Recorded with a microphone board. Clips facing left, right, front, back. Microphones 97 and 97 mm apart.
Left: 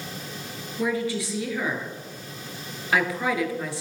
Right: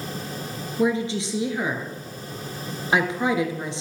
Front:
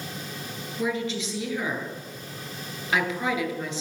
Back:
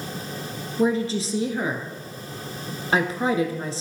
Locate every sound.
0.8 s a woman speaking: 145° right, 1.4 m